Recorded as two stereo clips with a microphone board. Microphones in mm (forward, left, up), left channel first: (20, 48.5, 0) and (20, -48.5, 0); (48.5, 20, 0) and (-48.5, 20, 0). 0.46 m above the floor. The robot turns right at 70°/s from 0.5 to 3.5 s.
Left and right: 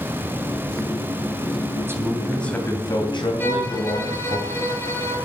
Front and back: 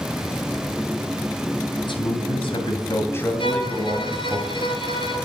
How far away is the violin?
About 5 m.